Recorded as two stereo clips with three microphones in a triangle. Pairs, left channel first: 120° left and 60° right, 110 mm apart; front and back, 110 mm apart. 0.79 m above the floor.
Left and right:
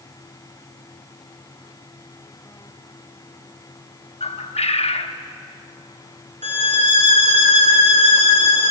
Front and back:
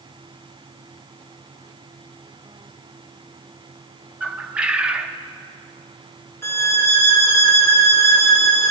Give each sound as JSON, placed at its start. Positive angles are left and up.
{"t": 4.2, "sound": "a bird", "azimuth_deg": 100, "distance_m": 0.7}
{"t": 6.4, "sound": "a violin", "azimuth_deg": -70, "distance_m": 1.5}